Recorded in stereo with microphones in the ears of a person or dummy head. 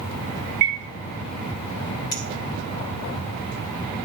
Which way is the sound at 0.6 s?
50° right (ahead or behind).